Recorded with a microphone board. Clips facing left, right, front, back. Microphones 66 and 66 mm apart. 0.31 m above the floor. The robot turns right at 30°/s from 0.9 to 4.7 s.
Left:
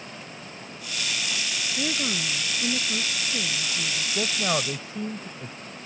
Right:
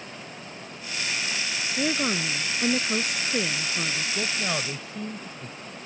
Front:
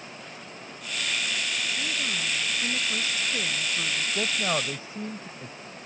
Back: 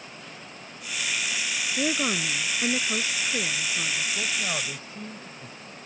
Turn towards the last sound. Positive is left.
turn(degrees=45)